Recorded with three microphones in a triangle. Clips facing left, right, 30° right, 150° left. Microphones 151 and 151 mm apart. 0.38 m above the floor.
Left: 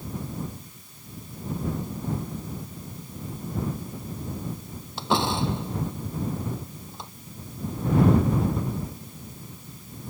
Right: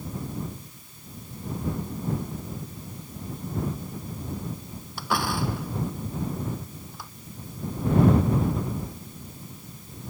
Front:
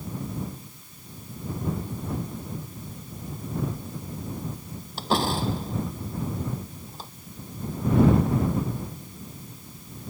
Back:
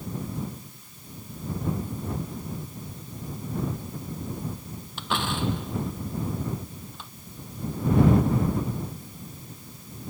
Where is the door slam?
25° left.